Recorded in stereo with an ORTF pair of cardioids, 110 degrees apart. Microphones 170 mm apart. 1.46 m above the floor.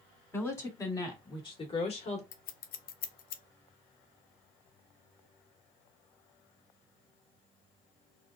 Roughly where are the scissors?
Ahead left.